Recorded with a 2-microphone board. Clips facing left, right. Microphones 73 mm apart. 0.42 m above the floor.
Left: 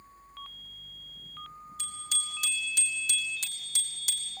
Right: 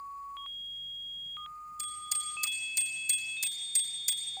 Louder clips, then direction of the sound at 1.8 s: Even; 65° left (ahead or behind).